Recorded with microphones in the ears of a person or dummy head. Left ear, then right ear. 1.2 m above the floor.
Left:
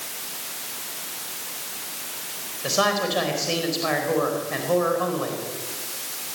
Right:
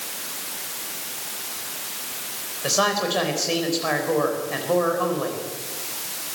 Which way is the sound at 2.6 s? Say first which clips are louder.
Even; centre (ahead or behind).